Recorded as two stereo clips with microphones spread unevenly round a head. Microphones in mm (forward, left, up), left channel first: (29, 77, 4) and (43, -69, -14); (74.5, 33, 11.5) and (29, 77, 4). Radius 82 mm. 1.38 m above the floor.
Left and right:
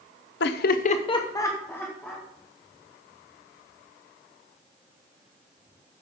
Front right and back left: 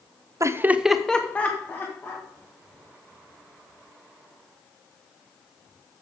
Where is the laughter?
105° left, 0.7 m; by 2.2 s 10° left, 2 m.